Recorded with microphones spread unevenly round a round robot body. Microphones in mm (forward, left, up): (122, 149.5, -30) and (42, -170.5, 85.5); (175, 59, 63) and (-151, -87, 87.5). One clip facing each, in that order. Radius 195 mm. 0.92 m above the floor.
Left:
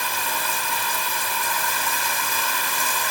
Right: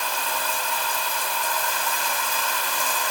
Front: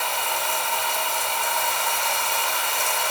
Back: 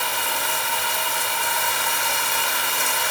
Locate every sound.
0.0 s running water: 150° left, 0.9 m